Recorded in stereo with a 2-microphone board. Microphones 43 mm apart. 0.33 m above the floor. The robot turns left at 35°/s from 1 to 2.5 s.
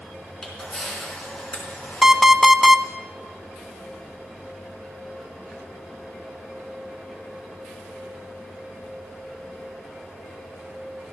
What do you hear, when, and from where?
0.4 s a camera shutter: 5° left (ahead or behind), 4.5 m; by 2.9 s 55° left (ahead or behind), 4.5 m
2.0 s an alarm clock: 15° right (ahead or behind), 0.6 m; by 2.8 s 10° right (ahead or behind), 0.6 m